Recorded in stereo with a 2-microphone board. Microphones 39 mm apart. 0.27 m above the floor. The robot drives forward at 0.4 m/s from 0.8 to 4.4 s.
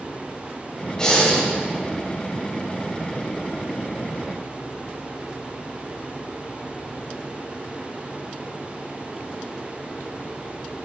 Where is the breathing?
20° left (ahead or behind), 1.4 m.